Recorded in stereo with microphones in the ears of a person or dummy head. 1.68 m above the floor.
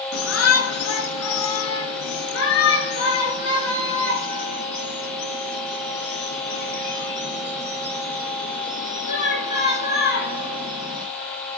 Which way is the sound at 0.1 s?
80° left.